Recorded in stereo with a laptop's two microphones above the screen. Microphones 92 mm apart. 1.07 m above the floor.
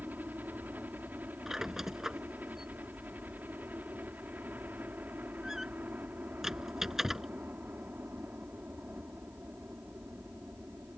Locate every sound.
0.0 s a helicopter: 20° right (ahead or behind)
1.5 s a squeak: 5° right (ahead or behind)